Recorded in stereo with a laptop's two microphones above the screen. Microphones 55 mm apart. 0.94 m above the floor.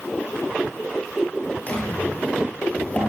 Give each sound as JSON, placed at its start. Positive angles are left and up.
{"t": 1.7, "sound": "a drawer", "side_deg": 30, "distance_m": 7.0}